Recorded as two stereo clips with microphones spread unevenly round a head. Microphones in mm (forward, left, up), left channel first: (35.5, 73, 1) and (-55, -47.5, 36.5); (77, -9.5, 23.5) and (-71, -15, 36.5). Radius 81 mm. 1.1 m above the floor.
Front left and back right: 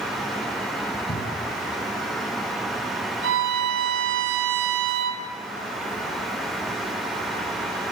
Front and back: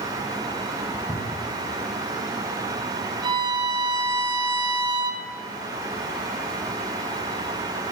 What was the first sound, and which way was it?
A cupboard door, 70° left.